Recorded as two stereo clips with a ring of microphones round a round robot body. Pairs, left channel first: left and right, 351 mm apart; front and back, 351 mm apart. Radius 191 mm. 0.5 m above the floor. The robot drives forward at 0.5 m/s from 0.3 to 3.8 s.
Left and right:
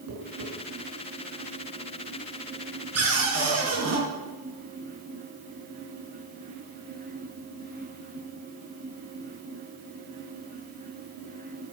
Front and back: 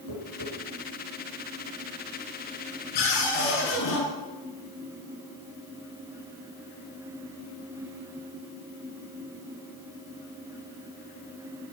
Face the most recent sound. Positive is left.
turn(degrees=-45)